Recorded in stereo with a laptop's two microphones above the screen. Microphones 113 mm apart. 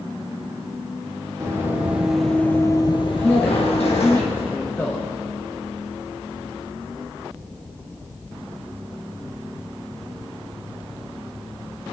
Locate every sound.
1.4 s running footsteps: 25° right (ahead or behind), 2.5 m; by 4.2 s 70° left (ahead or behind), 3 m
3.2 s a man speaking: 20° left (ahead or behind), 0.8 m